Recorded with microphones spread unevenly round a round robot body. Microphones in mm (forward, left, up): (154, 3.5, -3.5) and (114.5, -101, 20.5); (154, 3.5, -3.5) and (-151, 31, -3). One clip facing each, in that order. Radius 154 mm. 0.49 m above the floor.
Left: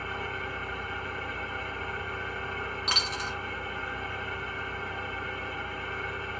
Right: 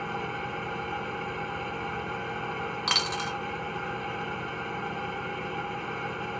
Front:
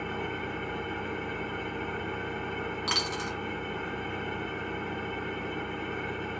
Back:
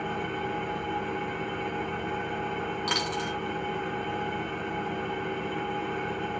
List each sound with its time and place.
0.0 s an engine running: 115° right, 1.5 m
2.9 s a dropped coin: 95° right, 1.2 m